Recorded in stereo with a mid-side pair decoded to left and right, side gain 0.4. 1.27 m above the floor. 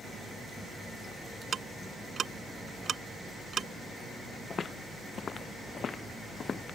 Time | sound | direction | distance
1.5 | ticking | 55° right | ?
4.5 | footsteps | 50° left | ?